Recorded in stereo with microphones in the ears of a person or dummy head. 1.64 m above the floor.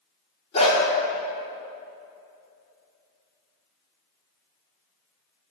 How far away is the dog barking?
About 2 m.